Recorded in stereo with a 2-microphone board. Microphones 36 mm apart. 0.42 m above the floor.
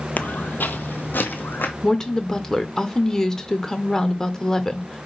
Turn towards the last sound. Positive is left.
turn(degrees=15)  # may be behind; listen again after turning